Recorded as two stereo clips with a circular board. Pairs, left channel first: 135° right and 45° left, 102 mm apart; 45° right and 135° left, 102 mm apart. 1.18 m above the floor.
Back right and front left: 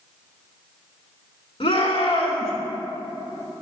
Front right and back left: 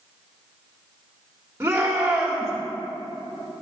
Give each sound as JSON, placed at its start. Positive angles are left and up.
{"t": 1.6, "sound": "a shout", "azimuth_deg": -160, "distance_m": 3.5}